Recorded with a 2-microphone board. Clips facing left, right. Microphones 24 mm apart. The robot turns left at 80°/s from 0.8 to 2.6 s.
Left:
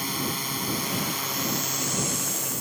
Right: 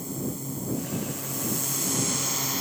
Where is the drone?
100° left; by 2.6 s 45° right.